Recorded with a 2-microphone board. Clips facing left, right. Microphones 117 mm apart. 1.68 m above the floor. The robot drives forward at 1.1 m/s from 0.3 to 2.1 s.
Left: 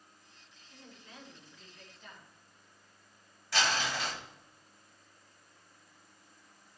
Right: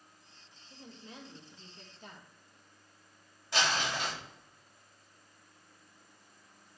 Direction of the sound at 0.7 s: 20° right (ahead or behind).